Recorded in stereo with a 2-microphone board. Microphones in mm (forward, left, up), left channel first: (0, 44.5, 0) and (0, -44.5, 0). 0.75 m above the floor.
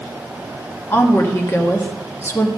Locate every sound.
0.9 s a woman speaking: 25° left (ahead or behind), 1.2 m